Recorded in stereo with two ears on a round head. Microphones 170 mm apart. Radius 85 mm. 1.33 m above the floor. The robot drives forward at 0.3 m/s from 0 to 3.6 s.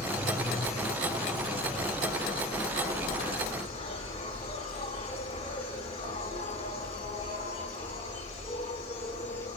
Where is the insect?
40° left (ahead or behind), 4 m; by 9.6 s 30° left (ahead or behind), 5 m.